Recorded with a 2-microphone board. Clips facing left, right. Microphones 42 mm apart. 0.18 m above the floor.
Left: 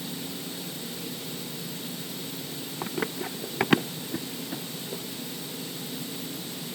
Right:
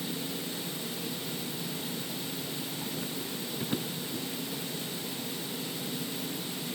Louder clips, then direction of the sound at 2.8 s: Left 5 dB; 80° left.